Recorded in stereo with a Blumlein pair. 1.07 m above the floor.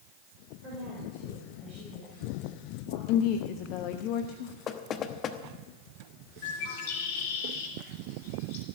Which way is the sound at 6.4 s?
55° left.